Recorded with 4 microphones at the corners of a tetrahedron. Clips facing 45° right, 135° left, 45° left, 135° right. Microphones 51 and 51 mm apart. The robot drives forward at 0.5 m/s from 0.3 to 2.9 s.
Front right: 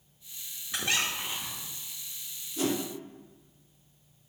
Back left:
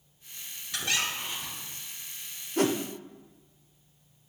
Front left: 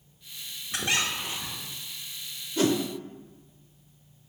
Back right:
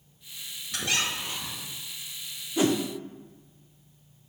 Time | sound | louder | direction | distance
0.7 | a squeak | even, front left 1 dB | straight ahead | 1.1 m
2.6 | a whoosh | back left 4 dB, even | 150° left | 0.6 m